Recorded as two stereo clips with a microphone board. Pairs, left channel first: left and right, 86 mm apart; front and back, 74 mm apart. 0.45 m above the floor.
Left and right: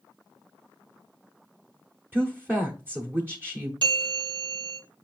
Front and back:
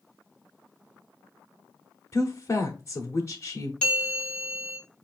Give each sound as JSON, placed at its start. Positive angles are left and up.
{"t": 2.1, "sound": "a woman speaking", "azimuth_deg": -35, "distance_m": 1.1}
{"t": 3.8, "sound": "a bell", "azimuth_deg": -75, "distance_m": 3.0}